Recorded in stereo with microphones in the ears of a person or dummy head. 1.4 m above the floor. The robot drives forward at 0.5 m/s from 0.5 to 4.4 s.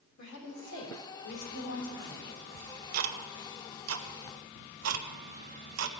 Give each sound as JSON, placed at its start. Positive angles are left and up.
{"t": 0.2, "sound": "a woman speaking", "side_deg": 80, "distance_m": 3.5}
{"t": 2.5, "sound": "ticking", "side_deg": -45, "distance_m": 1.1}